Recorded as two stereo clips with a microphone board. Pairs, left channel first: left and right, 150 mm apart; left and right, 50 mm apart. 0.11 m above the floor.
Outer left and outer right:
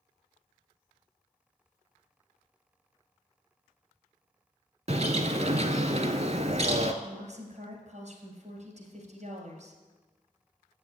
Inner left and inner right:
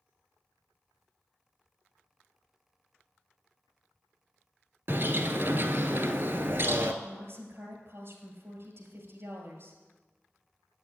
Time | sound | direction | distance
4.9 | a bird | 50° right (ahead or behind) | 0.7 m
7.0 | a woman speaking | 50° right (ahead or behind) | 2 m